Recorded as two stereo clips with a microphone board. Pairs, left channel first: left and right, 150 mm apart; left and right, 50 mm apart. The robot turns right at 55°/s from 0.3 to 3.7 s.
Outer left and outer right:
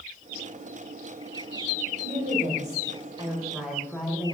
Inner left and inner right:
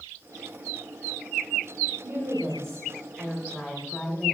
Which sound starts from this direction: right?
A woman speaking, at 2.0 s.